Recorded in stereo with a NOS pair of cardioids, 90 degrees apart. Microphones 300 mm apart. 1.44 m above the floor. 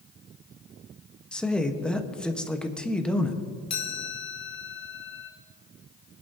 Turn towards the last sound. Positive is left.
turn(degrees=60)